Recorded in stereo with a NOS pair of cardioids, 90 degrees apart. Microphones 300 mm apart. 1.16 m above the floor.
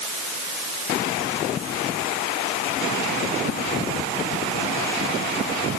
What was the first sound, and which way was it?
Only background noise.